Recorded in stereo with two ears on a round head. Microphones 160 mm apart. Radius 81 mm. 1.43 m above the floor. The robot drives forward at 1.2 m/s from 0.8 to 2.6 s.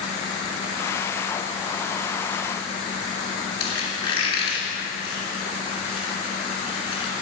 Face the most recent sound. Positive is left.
turn(degrees=25)  # may be behind; listen again after turning